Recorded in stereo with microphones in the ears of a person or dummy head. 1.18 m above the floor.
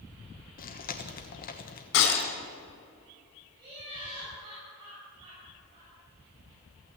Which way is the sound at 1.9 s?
70° left (ahead or behind).